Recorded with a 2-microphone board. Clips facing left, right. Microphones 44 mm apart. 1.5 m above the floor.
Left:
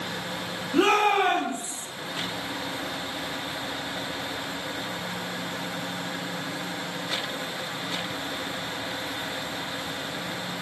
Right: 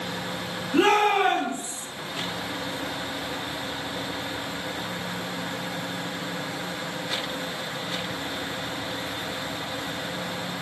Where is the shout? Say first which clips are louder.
Right 1 dB; 45° right (ahead or behind), 1.4 m.